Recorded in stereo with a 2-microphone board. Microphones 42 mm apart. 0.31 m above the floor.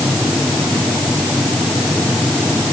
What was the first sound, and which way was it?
Only background noise.